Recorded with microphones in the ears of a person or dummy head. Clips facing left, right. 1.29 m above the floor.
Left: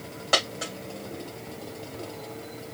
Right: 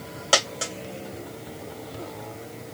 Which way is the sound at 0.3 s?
45° right (ahead or behind).